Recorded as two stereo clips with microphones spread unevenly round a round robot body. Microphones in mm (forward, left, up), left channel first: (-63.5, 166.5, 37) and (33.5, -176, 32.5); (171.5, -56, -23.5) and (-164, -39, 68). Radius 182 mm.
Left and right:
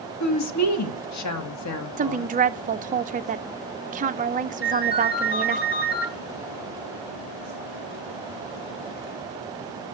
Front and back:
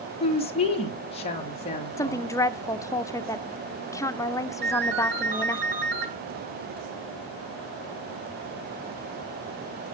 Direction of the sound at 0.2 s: 65° left.